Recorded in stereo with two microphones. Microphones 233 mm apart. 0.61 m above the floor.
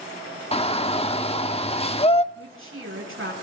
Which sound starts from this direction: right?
A woman speaking, at 2.3 s.